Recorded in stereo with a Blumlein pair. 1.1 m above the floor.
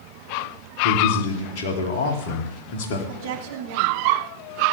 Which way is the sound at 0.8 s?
50° left.